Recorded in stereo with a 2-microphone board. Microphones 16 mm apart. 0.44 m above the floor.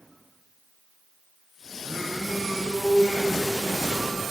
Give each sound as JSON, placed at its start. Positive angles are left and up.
{"t": 1.8, "sound": "singing", "side_deg": -60, "distance_m": 4.0}